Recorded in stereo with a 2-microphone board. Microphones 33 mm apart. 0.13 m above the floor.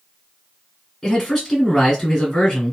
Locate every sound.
1.0 s a man speaking: 10° left (ahead or behind), 1.8 m